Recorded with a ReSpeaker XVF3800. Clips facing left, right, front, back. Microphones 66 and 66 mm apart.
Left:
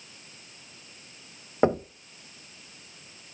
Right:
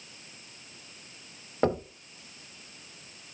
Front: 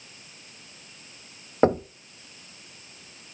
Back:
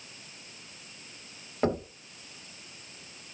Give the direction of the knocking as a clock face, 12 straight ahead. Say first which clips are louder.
Left 4 dB, front 7 dB; 11 o'clock.